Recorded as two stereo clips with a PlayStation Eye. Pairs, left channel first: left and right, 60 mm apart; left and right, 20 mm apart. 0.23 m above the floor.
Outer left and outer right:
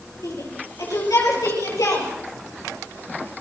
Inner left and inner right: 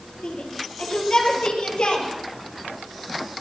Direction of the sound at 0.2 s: 65° left (ahead or behind).